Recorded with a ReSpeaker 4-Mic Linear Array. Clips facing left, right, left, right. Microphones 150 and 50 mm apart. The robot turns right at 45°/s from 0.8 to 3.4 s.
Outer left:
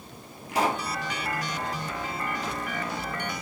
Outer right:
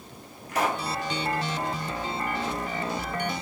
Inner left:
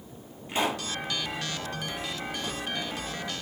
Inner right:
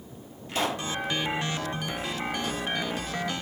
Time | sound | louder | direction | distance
0.5 | a pop | outer left 1 dB, even | 10° left (ahead or behind) | 1.1 m